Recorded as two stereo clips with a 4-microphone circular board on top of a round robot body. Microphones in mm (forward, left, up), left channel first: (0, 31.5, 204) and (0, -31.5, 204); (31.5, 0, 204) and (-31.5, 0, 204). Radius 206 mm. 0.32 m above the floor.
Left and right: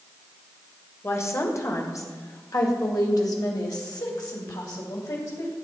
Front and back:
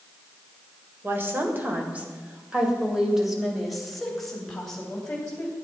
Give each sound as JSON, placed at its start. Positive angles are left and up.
{"t": 1.0, "sound": "a woman speaking", "azimuth_deg": 130, "distance_m": 2.5}